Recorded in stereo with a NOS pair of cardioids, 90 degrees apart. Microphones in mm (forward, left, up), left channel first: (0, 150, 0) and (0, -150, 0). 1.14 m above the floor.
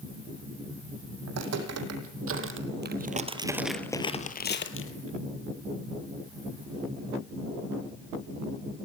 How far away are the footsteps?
About 4 m.